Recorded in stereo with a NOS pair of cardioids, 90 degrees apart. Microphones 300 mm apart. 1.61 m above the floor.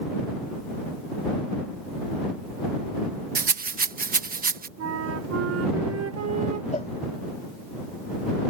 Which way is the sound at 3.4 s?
30° right.